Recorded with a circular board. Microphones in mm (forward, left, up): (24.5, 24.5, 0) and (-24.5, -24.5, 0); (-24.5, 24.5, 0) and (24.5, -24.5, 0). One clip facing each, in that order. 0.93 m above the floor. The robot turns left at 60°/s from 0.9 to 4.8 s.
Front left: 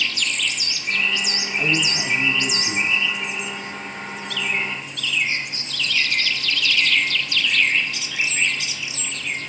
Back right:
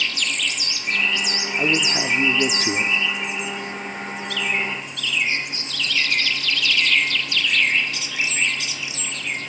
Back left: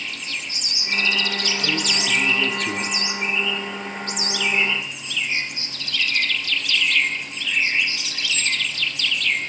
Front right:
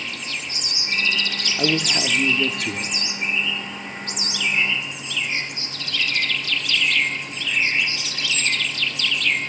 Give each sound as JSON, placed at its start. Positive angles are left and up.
{"t": 1.6, "sound": "a man speaking", "azimuth_deg": -70, "distance_m": 1.8}